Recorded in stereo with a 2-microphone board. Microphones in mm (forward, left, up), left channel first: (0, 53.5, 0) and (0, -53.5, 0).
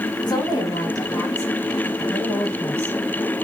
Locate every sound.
0.3 s a woman speaking: 40° left (ahead or behind), 4 m; by 3.3 s 5° left (ahead or behind), 3.5 m